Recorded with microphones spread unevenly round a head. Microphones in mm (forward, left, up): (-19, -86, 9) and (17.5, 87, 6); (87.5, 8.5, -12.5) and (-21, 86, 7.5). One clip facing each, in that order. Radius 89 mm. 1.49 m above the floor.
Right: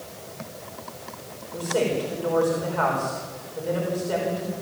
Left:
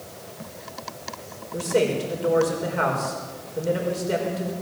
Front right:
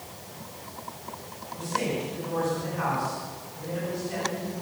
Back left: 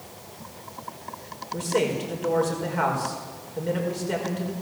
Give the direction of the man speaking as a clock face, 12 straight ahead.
7 o'clock.